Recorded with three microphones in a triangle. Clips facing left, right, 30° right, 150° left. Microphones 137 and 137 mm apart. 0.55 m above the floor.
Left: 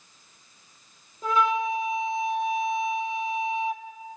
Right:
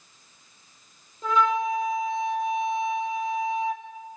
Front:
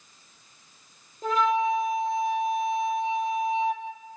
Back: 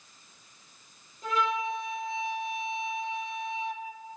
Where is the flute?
10° left, 2 m.